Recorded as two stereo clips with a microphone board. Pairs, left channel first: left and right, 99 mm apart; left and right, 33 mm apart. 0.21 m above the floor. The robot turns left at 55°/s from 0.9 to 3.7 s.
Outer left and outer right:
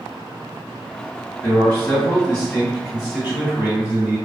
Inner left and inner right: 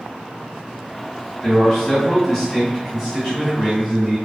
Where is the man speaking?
75° left, 1.8 m; by 4.2 s 50° right, 1.8 m.